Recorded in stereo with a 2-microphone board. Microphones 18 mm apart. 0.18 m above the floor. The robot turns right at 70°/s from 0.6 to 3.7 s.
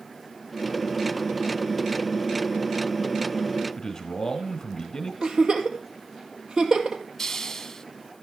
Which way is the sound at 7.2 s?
20° left (ahead or behind).